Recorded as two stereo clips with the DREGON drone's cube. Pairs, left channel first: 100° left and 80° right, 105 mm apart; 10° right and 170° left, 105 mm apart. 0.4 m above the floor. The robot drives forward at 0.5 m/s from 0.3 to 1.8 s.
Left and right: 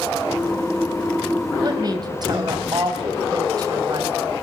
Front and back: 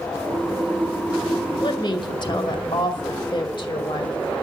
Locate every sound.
1.6 s a woman speaking: 40° right, 2 m